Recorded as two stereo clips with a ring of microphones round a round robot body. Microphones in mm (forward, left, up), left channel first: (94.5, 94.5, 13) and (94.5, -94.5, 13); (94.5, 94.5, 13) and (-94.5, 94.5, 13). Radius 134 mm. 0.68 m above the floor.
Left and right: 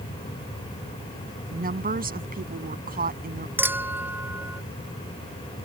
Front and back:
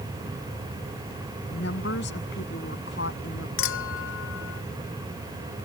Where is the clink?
10° right.